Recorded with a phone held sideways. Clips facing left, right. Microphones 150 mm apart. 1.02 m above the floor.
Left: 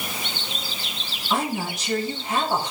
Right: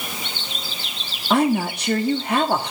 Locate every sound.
1.3 s a woman speaking: 65° right (ahead or behind), 2.5 m